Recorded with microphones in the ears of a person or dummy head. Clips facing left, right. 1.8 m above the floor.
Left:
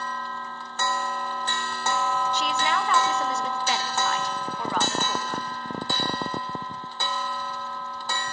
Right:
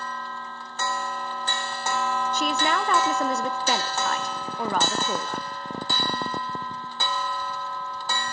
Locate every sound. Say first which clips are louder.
2.3 s a woman speaking: right 1 dB; 45° right (ahead or behind), 1.3 m